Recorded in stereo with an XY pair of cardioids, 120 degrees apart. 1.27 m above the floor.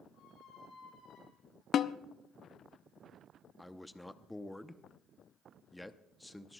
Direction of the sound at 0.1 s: 70° left.